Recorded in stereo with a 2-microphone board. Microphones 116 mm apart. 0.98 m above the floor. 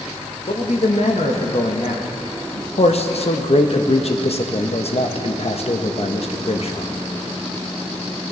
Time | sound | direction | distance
0.5 | a man speaking | 65° left (ahead or behind) | 1.2 m
2.8 | a man speaking | 60° left (ahead or behind) | 0.8 m